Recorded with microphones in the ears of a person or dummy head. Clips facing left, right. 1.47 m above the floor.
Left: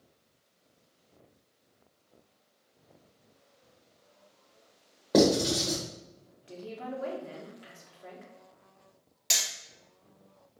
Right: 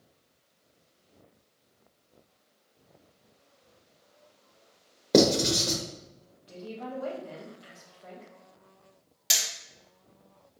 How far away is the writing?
About 0.9 m.